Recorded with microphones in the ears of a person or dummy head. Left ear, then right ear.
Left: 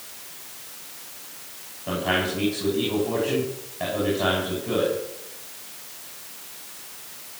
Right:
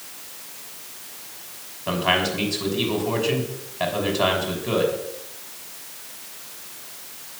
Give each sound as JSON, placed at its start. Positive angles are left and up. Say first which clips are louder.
{"t": 1.9, "sound": "a man speaking", "louder": "right 3 dB", "side_deg": -35, "distance_m": 6.0}